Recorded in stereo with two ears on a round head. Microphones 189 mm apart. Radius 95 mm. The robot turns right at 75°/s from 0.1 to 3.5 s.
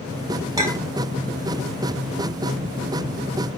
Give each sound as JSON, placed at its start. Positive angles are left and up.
{"t": 0.6, "sound": "a clink", "side_deg": -20, "distance_m": 1.4}